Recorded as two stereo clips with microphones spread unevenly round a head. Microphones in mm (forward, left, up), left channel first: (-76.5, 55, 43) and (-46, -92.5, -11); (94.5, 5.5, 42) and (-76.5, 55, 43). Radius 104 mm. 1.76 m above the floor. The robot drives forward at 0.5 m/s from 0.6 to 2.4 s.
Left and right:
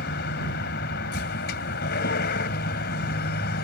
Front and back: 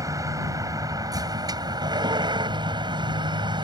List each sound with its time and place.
0.0 s a vehicle: 90° left; by 3.6 s 100° left